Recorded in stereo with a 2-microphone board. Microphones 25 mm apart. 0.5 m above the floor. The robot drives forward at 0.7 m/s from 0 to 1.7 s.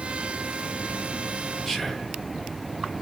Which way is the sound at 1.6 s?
Centre (ahead or behind).